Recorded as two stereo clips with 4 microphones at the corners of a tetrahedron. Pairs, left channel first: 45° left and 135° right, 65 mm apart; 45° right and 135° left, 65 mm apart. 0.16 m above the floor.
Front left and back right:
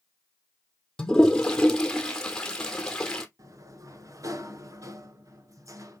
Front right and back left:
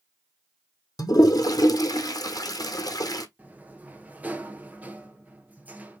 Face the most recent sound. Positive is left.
turn(degrees=-165)